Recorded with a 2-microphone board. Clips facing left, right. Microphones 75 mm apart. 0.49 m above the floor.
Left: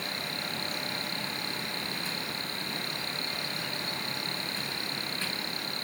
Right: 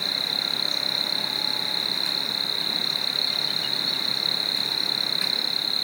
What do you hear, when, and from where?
0.0 s an insect: 70° right (ahead or behind)